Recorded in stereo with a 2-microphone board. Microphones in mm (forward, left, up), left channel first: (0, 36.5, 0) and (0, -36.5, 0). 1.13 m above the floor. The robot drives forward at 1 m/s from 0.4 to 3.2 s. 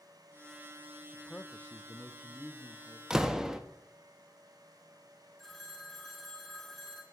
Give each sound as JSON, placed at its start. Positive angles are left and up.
{"t": 1.1, "sound": "a man speaking", "side_deg": 10, "distance_m": 0.8}
{"t": 3.1, "sound": "a door slam", "side_deg": -10, "distance_m": 0.9}
{"t": 5.4, "sound": "a phone ringing", "side_deg": 5, "distance_m": 2.0}